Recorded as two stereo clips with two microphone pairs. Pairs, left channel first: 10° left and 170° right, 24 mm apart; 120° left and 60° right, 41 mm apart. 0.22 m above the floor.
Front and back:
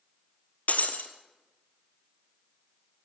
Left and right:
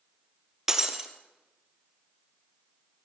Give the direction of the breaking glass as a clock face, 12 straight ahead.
11 o'clock.